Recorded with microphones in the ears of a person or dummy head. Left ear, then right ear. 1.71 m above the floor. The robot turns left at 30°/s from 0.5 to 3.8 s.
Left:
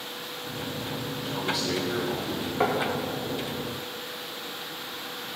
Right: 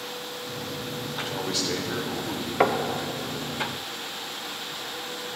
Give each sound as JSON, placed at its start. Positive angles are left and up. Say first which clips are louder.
{"t": 1.2, "sound": "a man speaking", "louder": "even", "azimuth_deg": -175, "distance_m": 0.8}
{"t": 2.6, "sound": "knocking", "louder": "right 3 dB", "side_deg": -25, "distance_m": 0.7}